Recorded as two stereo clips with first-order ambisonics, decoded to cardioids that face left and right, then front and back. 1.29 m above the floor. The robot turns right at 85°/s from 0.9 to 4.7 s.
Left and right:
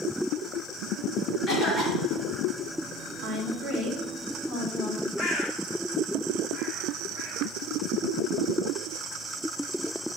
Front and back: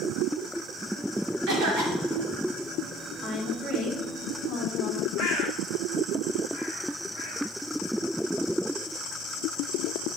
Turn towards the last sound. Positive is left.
turn(degrees=30)